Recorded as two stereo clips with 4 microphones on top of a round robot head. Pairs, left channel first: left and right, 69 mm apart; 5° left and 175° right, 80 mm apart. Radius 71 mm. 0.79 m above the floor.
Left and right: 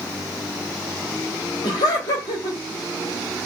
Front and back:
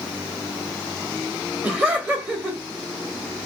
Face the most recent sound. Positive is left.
turn(degrees=115)